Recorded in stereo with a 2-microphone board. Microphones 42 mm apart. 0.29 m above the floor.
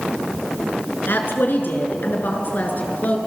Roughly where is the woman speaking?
Left.